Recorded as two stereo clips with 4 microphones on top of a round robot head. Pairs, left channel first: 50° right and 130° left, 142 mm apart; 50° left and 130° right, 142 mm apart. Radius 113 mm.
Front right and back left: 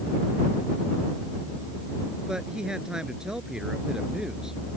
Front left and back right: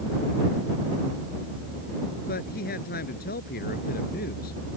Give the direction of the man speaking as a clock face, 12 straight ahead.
11 o'clock.